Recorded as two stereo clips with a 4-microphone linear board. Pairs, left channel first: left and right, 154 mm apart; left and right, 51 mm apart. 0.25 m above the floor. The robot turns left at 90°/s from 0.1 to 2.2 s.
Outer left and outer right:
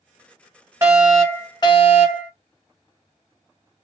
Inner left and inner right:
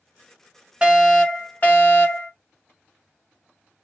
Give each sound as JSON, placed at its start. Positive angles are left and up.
{"t": 0.8, "sound": "a fire alarm", "azimuth_deg": -150, "distance_m": 2.5}